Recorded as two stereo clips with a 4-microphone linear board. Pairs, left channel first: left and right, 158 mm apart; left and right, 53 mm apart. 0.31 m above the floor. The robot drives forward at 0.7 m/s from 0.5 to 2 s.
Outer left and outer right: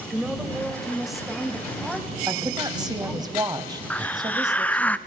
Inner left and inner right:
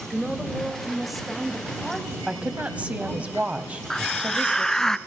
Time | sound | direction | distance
0.1 | a woman speaking | centre (ahead or behind) | 1.8 m
2.3 | a woman speaking | 25° right (ahead or behind) | 1.6 m
3.9 | a hiss | 10° left (ahead or behind) | 0.6 m